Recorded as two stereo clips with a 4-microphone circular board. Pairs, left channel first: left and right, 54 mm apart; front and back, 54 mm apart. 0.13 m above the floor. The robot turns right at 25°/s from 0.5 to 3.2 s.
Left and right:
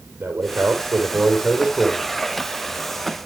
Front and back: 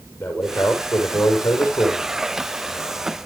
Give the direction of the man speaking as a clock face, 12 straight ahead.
2 o'clock.